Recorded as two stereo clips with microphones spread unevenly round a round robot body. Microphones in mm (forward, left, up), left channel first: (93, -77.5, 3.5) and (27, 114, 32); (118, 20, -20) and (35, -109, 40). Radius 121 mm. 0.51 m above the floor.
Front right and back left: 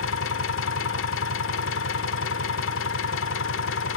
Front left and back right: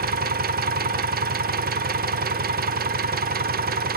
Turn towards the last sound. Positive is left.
turn(degrees=-80)